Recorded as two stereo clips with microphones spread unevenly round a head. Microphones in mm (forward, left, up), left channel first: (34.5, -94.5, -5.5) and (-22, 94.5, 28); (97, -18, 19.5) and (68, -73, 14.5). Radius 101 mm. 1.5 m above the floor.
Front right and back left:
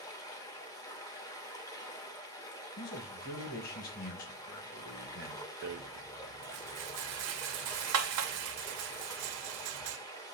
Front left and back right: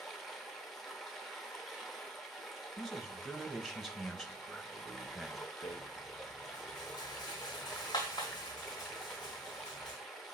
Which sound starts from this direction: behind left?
A rattle, at 5.6 s.